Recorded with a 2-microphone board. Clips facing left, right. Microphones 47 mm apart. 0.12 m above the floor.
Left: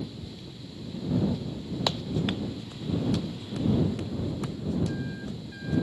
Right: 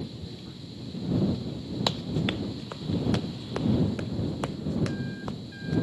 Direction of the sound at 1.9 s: Centre (ahead or behind).